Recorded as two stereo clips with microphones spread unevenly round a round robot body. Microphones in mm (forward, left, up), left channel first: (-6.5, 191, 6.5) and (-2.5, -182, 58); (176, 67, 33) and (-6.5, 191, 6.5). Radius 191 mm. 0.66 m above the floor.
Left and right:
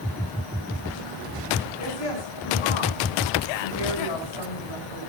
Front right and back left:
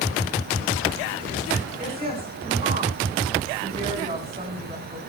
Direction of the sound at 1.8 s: 80° left.